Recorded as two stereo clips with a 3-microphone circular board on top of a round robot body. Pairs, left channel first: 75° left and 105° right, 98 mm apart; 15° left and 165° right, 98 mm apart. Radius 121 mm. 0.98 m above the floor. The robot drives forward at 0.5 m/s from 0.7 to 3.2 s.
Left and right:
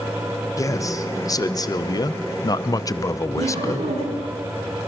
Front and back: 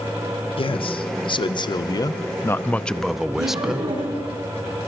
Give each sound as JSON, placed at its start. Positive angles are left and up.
{"t": 0.6, "sound": "a man speaking", "azimuth_deg": 25, "distance_m": 1.3}
{"t": 3.4, "sound": "laughter", "azimuth_deg": -125, "distance_m": 9.0}